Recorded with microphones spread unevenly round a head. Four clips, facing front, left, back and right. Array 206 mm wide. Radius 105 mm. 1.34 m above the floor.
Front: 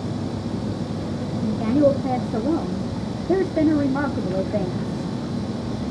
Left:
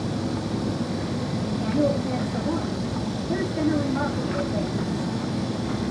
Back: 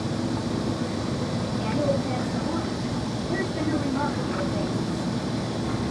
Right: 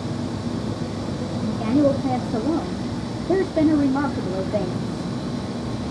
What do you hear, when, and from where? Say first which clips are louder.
1.4 s a woman speaking: right 5 dB, front 9 dB; 45° right, 0.8 m